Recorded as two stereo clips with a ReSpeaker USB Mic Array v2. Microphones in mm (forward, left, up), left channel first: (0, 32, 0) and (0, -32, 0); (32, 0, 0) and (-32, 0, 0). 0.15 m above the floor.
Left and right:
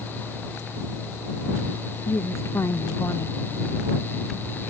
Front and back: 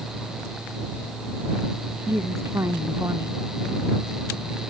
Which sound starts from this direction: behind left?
A woman speaking, at 2.1 s.